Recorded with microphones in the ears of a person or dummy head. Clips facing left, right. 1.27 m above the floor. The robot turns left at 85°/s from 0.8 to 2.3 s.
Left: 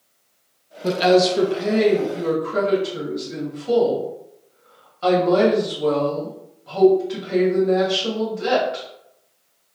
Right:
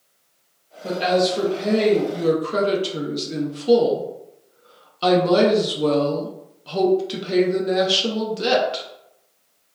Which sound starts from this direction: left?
A woman speaking, at 0.8 s.